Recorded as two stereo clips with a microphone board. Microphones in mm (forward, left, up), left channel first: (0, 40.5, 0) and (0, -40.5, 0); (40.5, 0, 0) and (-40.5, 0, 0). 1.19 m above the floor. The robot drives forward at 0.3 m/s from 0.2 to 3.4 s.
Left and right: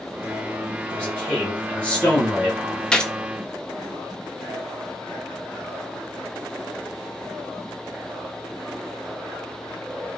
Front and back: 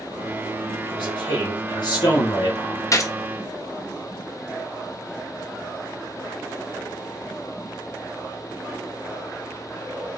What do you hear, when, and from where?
0.8 s a man speaking: 15° left, 2 m; by 2.8 s 20° left, 1.6 m
2.9 s a gunshot: 15° left, 0.6 m; by 3.1 s 20° left, 0.5 m